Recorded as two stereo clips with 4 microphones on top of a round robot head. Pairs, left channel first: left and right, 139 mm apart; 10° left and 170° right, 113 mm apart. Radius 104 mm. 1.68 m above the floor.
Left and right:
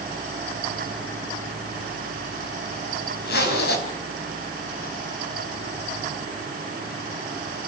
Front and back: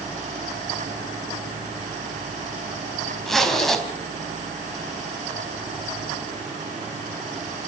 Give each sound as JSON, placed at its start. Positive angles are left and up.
{"t": 3.3, "sound": "a zipper", "azimuth_deg": 100, "distance_m": 4.5}